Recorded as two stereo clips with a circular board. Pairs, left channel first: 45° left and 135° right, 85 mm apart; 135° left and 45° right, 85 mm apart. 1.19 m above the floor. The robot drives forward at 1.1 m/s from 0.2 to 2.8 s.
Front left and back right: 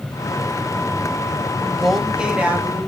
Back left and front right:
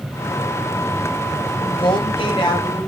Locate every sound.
1.6 s a woman speaking: 130° left, 1.4 m; by 2.9 s 155° left, 2.5 m